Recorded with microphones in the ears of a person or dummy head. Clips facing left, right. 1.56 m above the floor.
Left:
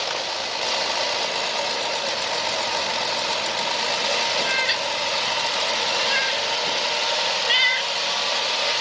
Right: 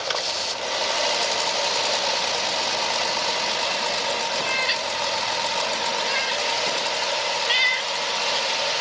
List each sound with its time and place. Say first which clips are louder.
4.4 s a cat meowing: left 1 dB; 5° left (ahead or behind)